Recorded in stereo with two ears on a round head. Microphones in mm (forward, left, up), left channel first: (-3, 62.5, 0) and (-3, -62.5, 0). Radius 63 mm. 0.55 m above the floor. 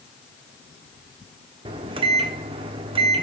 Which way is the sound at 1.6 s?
40° right (ahead or behind).